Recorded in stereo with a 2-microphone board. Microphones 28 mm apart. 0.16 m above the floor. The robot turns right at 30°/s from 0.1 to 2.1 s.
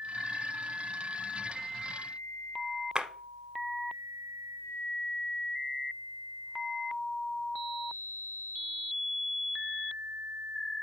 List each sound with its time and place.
3.0 s a clap: 30° right (ahead or behind), 1.1 m